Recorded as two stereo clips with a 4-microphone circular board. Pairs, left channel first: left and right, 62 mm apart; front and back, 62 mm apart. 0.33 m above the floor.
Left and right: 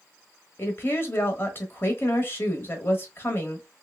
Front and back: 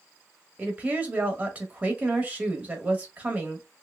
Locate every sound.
0.6 s a woman speaking: 125° left, 1.1 m